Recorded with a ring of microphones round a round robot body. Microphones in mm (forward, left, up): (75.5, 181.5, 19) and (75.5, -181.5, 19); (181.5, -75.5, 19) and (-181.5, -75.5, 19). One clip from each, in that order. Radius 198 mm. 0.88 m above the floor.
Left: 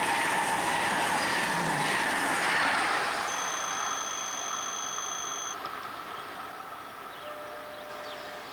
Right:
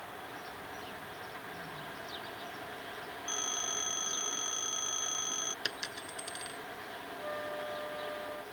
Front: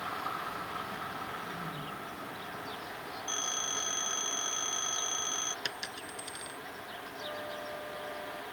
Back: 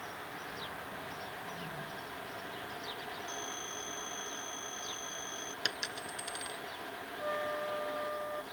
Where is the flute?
155° right.